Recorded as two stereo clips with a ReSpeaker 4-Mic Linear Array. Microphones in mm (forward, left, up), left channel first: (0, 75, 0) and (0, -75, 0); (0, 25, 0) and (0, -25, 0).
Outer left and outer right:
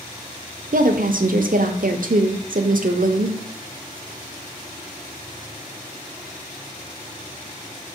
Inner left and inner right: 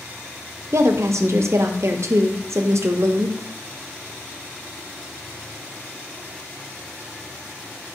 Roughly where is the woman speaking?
Right.